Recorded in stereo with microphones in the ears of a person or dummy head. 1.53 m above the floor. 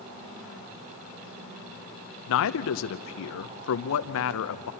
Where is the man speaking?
55° left (ahead or behind), 0.9 m.